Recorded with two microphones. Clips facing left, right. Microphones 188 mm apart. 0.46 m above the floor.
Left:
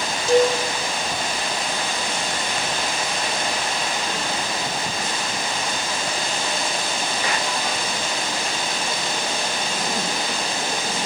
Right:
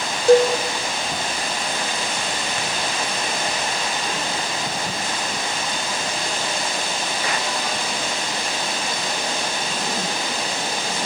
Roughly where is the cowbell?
Right.